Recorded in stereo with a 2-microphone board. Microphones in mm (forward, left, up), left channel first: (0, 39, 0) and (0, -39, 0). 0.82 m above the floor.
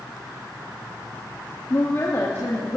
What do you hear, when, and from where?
1.7 s a woman speaking: 35° left (ahead or behind), 1.0 m; by 2.8 s 20° left (ahead or behind), 1.6 m